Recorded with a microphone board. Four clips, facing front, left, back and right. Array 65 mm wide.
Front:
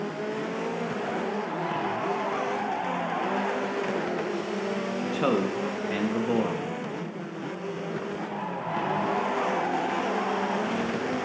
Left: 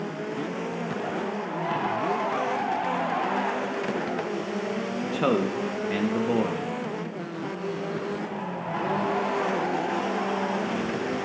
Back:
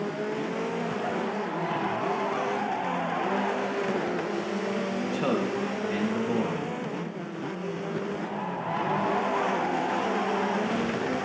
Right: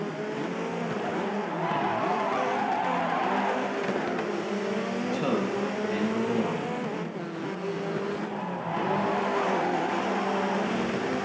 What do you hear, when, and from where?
5.0 s a man speaking: 60° left, 0.7 m